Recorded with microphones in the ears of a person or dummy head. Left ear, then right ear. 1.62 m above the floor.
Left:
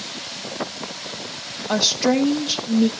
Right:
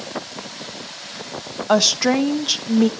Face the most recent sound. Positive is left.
turn(degrees=-45)  # may be behind; listen again after turning